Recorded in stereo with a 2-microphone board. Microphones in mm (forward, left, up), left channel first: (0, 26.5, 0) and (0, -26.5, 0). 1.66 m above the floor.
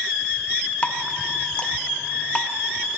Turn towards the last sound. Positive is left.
turn(degrees=25)  # may be behind; listen again after turning